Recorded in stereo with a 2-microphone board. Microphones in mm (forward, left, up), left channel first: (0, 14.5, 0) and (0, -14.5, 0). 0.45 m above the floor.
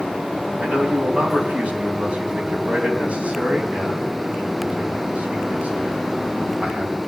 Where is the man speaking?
50° right (ahead or behind), 3.5 m.